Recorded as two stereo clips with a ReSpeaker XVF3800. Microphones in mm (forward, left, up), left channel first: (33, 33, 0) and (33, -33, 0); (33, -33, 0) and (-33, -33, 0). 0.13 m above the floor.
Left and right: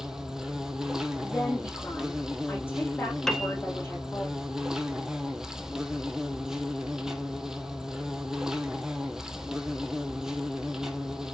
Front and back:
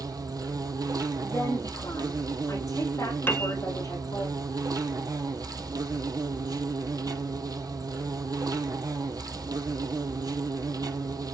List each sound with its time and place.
0.0 s an insect: 170° right, 1.0 m
1.2 s a woman speaking: 35° left, 8 m
3.3 s a piano: 15° left, 1.1 m